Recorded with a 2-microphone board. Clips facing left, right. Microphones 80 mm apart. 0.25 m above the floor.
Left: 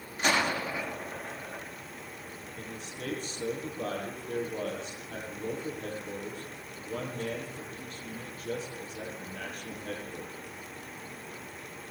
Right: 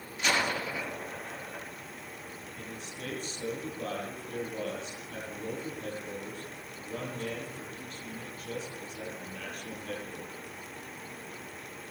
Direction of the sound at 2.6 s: 50° left (ahead or behind).